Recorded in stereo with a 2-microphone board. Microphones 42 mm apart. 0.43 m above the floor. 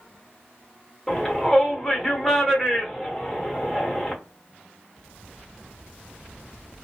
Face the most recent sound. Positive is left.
turn(degrees=10)  # may be behind; listen again after turning